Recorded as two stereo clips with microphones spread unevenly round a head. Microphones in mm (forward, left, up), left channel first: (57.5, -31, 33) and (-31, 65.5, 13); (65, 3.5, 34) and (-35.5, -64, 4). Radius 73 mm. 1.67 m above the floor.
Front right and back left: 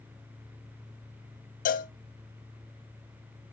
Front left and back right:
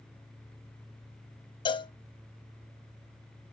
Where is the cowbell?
20° right, 0.6 m.